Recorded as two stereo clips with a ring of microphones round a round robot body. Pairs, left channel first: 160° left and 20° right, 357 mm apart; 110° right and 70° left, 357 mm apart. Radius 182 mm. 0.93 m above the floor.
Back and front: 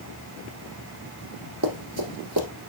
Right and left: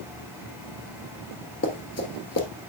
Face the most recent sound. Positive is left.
turn(degrees=-60)